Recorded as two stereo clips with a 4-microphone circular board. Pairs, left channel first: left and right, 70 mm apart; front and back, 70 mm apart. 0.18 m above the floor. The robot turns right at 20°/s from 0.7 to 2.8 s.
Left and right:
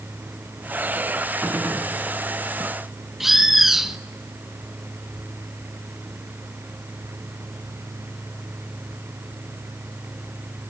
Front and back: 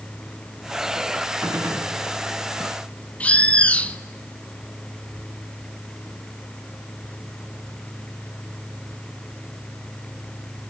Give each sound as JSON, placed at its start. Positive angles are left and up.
{"t": 1.4, "sound": "a gunshot", "azimuth_deg": -150, "distance_m": 1.6}
{"t": 3.2, "sound": "a bird", "azimuth_deg": -10, "distance_m": 0.6}